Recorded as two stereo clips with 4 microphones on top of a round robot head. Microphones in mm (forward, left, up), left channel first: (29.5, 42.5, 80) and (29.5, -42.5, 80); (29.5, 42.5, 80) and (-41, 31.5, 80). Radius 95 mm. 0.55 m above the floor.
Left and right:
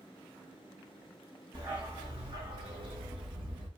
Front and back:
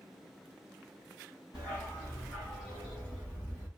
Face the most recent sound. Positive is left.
turn(degrees=-75)